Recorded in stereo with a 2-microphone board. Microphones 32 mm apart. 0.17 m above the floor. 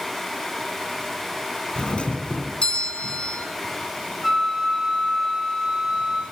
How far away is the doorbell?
About 2.5 m.